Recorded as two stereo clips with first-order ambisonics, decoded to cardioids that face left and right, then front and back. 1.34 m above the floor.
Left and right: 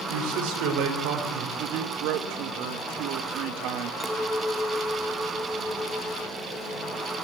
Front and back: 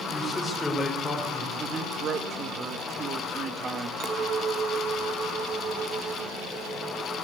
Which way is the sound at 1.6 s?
115° right.